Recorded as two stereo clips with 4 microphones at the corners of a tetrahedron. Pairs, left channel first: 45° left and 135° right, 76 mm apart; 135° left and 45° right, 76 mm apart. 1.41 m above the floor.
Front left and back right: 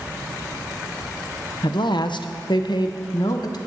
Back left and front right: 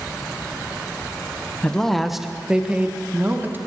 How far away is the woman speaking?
About 0.9 m.